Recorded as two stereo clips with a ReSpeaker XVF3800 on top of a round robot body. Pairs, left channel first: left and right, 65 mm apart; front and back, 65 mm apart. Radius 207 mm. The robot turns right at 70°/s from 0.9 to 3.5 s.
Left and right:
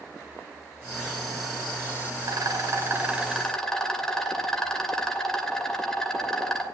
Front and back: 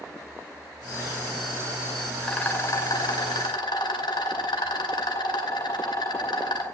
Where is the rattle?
80° right, 2.5 m; by 6.6 s 10° left, 2.5 m.